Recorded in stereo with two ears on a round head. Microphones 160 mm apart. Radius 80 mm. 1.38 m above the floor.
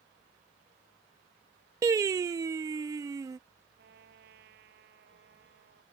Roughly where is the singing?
Centre.